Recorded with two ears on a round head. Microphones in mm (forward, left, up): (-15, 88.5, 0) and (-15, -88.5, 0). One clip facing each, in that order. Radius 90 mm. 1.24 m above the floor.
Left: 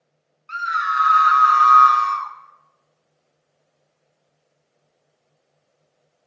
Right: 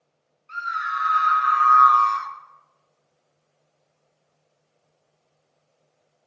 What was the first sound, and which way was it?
A scream, 70° left (ahead or behind).